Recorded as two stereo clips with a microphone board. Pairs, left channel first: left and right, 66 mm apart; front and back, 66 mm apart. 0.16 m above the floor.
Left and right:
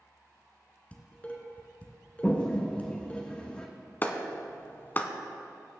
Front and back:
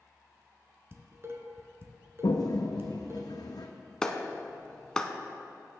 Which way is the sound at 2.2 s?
15° left.